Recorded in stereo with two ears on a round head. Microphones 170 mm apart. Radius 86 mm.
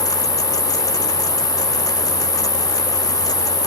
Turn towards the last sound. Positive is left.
turn(degrees=25)  # may be behind; listen again after turning